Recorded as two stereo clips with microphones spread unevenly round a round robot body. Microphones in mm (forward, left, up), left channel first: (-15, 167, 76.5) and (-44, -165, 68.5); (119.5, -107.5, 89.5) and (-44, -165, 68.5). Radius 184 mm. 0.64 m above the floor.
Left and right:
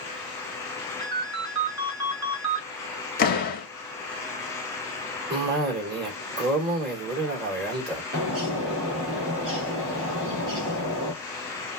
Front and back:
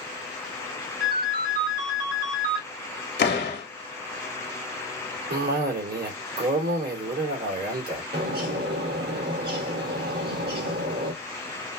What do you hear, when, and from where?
1.0 s a ringtone: 130° right, 1.7 m
3.2 s a door slam: 25° left, 0.9 m
5.3 s a cough: 155° right, 2 m
8.1 s a bird: 145° right, 1.9 m